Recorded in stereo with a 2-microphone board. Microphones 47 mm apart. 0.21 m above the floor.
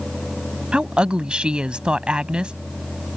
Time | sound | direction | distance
0.7 | a woman speaking | 20° right (ahead or behind) | ?